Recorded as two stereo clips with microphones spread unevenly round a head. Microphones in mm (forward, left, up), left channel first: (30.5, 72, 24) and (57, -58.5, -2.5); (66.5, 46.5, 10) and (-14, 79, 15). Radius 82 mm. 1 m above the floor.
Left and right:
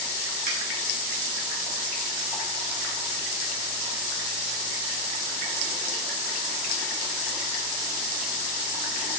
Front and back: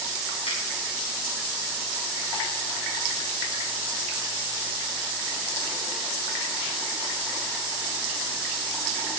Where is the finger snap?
75° right, 3.5 m.